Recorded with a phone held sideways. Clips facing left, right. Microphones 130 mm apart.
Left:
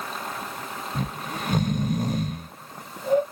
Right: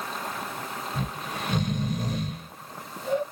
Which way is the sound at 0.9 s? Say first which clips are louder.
Left 4 dB; 50° left (ahead or behind).